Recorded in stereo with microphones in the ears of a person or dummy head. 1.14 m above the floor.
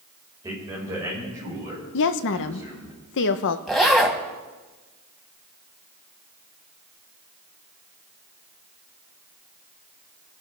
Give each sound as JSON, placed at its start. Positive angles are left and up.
{"t": 0.4, "sound": "a man speaking", "side_deg": -15, "distance_m": 5.0}
{"t": 1.9, "sound": "a woman speaking", "side_deg": 60, "distance_m": 0.9}
{"t": 3.7, "sound": "a zipper", "side_deg": 0, "distance_m": 1.7}